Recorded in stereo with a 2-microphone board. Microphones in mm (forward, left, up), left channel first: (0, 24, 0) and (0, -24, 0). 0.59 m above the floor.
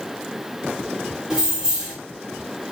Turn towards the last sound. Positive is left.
turn(degrees=-15)  # may be behind; listen again after turning